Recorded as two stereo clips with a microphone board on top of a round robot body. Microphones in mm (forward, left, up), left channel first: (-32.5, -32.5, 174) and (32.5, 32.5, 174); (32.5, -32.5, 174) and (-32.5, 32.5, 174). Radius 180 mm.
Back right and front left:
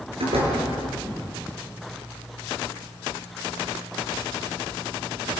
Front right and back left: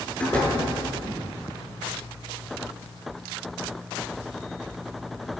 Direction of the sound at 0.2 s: 30° left.